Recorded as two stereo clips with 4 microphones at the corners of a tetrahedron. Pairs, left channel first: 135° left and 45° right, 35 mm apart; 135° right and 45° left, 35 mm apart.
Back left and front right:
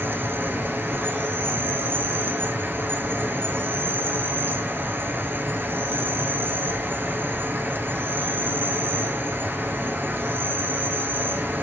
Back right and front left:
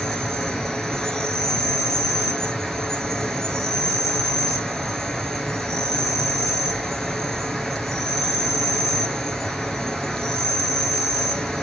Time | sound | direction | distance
0.0 | an insect | 60° right | 1.5 m